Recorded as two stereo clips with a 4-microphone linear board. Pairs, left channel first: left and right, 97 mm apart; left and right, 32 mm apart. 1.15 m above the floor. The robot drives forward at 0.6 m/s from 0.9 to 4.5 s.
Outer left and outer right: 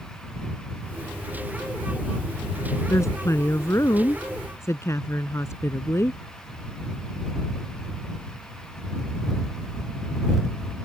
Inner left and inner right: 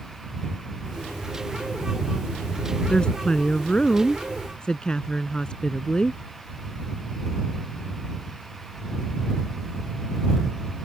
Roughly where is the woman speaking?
Left.